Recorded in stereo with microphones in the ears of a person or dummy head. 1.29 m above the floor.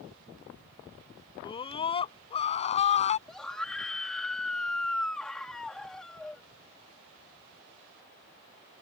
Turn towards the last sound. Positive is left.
turn(degrees=0)  # may be behind; listen again after turning